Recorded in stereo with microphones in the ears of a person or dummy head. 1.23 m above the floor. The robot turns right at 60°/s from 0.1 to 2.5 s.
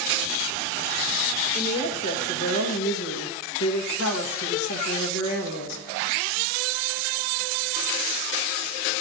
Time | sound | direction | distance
1.6 | a woman speaking | 20° left | 1.8 m